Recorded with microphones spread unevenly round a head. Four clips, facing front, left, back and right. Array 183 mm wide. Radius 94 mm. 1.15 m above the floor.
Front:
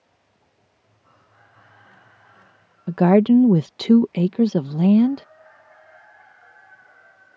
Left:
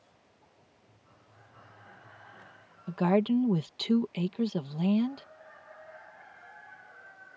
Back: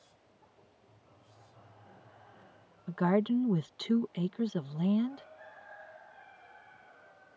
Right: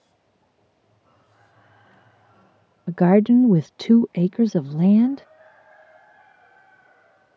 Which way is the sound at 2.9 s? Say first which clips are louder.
Right 10 dB, front 14 dB; 40° right.